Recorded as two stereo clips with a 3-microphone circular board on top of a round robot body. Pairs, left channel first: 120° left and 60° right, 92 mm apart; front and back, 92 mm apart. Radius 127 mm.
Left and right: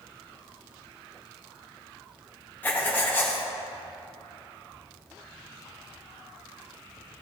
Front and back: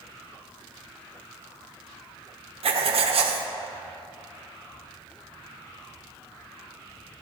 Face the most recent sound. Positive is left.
turn(degrees=-170)